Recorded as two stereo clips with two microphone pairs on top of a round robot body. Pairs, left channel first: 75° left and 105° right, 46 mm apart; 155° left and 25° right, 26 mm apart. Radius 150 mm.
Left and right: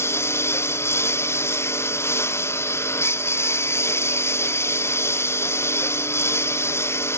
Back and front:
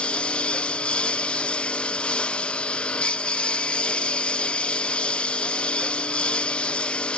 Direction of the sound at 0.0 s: 100° left.